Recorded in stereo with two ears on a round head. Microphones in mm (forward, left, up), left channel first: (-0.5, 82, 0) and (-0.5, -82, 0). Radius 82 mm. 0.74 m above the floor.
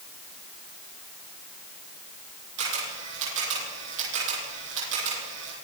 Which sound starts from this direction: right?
A camera shutter, at 2.6 s.